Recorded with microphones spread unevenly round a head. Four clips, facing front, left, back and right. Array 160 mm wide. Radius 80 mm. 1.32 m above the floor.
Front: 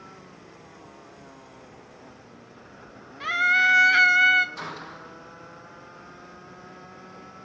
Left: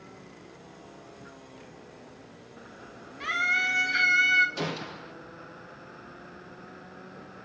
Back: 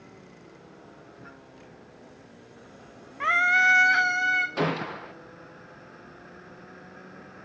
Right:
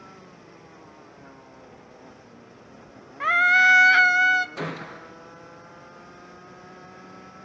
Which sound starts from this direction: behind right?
A scream, at 3.2 s.